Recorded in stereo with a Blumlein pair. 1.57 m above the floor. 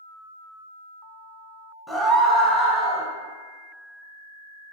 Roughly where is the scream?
Ahead.